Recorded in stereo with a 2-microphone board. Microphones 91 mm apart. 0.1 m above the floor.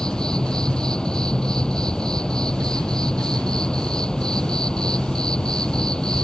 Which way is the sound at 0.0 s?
10° left (ahead or behind).